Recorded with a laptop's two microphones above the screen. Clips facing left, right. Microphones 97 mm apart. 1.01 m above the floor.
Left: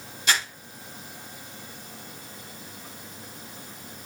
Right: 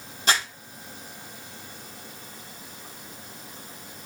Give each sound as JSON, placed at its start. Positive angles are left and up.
{"t": 0.3, "sound": "crumpling", "side_deg": -50, "distance_m": 1.6}